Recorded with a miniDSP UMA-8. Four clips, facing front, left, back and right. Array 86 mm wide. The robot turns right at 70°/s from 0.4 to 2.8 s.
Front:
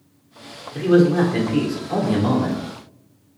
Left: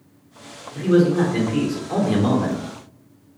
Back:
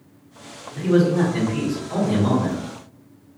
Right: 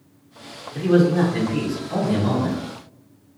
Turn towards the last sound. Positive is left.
turn(degrees=120)